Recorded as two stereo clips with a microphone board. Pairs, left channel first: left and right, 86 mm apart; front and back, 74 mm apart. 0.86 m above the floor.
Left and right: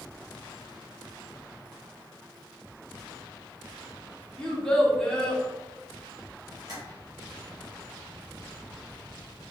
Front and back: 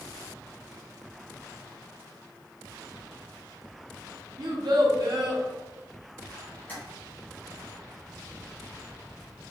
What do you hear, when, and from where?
4.4 s a child speaking: 170° left, 0.8 m
6.7 s tapping: 60° right, 1.2 m